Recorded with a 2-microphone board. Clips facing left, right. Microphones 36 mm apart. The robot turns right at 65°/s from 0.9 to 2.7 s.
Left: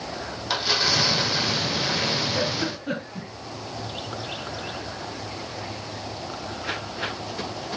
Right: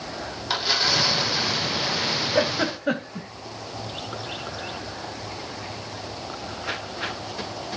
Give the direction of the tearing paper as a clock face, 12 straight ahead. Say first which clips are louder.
Even; 12 o'clock.